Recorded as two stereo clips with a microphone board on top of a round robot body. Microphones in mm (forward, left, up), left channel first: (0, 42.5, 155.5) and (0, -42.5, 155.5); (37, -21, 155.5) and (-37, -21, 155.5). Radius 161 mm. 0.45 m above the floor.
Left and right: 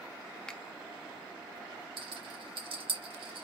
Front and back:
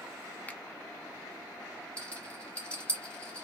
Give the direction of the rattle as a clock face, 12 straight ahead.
2 o'clock.